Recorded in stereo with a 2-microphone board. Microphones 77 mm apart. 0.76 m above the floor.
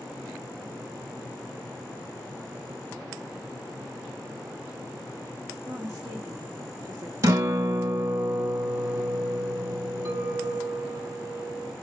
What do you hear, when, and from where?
5.6 s a woman speaking: 35° right (ahead or behind), 1.8 m
7.2 s a guitar: 40° right (ahead or behind), 0.8 m
10.1 s a clink: 30° right (ahead or behind), 1.2 m